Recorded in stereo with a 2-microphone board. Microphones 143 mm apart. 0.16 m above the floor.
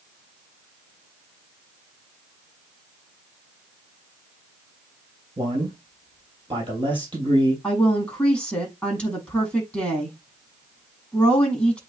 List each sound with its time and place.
5.4 s a man speaking: 35° right (ahead or behind), 3.5 m
7.6 s a woman speaking: 5° left (ahead or behind), 6 m